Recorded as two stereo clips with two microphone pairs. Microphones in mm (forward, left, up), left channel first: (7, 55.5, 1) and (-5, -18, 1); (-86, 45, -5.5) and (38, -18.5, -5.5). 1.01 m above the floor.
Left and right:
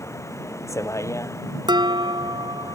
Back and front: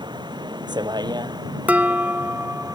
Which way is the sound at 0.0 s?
30° left.